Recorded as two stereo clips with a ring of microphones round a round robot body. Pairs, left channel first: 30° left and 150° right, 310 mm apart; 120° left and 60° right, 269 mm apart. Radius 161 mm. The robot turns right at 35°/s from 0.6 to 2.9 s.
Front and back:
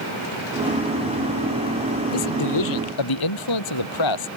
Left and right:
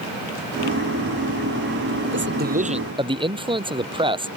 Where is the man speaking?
15° right; by 4.3 s 10° left.